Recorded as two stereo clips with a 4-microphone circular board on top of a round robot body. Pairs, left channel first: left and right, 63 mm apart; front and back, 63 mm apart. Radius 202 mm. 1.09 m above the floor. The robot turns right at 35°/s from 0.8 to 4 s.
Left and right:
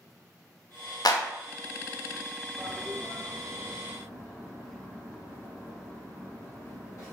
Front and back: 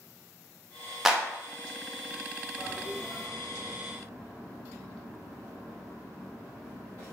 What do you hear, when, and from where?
1.1 s a clap: 95° left, 0.5 m; by 1.2 s 105° left, 0.5 m
2.6 s a toilet flushing: 80° left, 1.1 m; by 7.1 s 130° left, 1.1 m